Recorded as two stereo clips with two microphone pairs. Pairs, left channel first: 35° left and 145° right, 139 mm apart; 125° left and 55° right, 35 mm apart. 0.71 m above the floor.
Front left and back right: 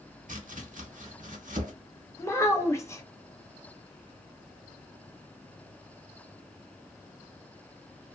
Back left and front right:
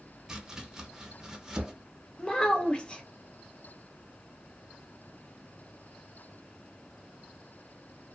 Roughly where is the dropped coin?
I don't hear a dropped coin.